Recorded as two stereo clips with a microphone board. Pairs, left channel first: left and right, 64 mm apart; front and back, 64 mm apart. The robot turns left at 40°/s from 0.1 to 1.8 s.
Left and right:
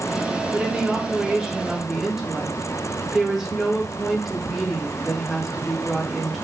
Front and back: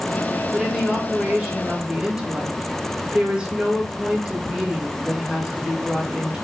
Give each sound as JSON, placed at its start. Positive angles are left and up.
{"t": 0.5, "sound": "a woman speaking", "azimuth_deg": -110, "distance_m": 0.8}